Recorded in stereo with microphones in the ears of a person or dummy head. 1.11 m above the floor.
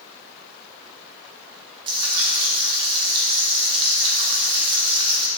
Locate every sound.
1.9 s frying: 30° right (ahead or behind), 0.9 m